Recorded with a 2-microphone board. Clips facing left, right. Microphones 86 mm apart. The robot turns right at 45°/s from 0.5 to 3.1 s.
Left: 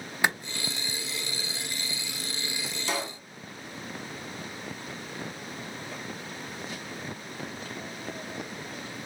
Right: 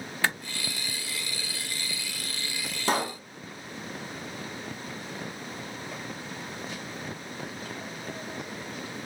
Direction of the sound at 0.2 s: 15° left (ahead or behind).